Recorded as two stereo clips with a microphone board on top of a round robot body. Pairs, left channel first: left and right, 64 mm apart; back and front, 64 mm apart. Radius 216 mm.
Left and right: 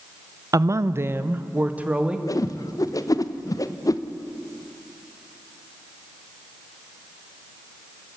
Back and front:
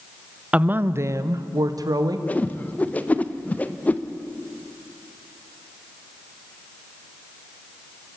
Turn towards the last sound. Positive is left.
turn(degrees=115)